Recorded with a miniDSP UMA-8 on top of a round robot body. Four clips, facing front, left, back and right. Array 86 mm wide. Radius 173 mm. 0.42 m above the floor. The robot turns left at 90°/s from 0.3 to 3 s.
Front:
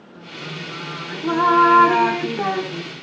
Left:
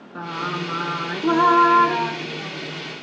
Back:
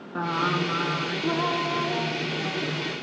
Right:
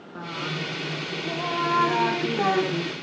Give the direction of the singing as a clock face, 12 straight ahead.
7 o'clock.